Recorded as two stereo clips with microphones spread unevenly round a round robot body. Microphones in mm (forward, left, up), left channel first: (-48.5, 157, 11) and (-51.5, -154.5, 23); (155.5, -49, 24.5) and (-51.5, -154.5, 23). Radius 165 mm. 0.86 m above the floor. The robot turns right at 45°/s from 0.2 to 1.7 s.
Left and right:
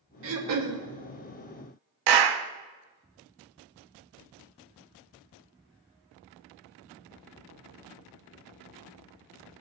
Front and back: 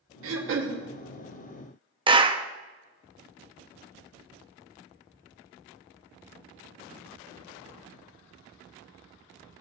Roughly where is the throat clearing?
Behind right.